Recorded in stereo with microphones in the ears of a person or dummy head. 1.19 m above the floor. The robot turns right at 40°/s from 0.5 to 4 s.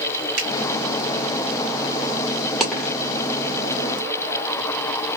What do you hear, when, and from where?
0.4 s a finger snap: 75° right (ahead or behind), 1.5 m
2.6 s a dropped coin: 5° left (ahead or behind), 1.3 m; by 3.0 s 15° left (ahead or behind), 1.3 m